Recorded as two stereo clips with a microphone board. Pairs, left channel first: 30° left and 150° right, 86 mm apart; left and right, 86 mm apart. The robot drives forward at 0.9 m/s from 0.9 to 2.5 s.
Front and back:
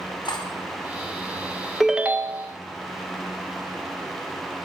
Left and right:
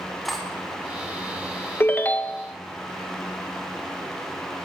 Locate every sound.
0.2 s cutlery clinking: straight ahead, 3 m
1.8 s a ringtone: 115° left, 0.5 m; by 2.5 s 165° left, 0.9 m